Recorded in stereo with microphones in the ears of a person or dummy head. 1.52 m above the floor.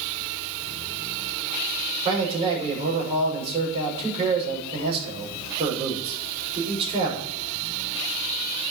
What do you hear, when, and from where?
2.0 s a man speaking: 30° right (ahead or behind), 6.5 m